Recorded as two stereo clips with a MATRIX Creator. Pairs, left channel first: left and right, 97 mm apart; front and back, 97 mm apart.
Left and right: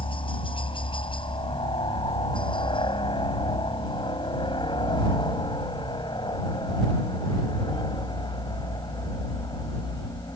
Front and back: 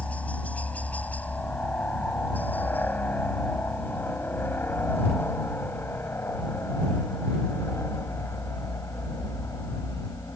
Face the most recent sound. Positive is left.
turn(degrees=50)